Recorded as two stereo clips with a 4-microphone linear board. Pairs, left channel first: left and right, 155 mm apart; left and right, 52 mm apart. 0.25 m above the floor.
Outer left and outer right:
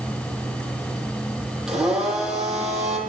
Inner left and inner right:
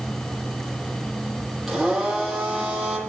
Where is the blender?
5° right (ahead or behind), 9 m.